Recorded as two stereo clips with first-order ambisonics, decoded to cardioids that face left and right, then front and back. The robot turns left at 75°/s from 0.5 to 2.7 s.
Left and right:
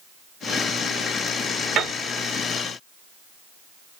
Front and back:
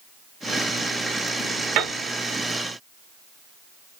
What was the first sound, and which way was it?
A piano, 145° right.